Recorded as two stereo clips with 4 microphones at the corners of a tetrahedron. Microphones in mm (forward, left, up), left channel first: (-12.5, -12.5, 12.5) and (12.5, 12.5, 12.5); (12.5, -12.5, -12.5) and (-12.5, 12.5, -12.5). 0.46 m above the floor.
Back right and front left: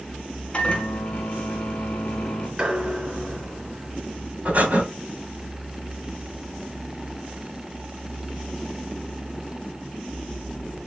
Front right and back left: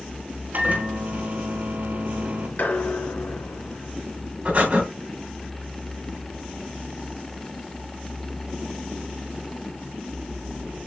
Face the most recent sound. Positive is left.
turn(degrees=90)